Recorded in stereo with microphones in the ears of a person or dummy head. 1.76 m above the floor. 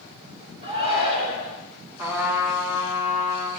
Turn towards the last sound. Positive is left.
turn(degrees=-15)  # may be behind; listen again after turning